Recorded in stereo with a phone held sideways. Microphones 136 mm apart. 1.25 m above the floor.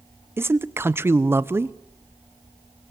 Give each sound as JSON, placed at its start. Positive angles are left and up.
{"t": 0.4, "sound": "a man speaking", "side_deg": -15, "distance_m": 0.7}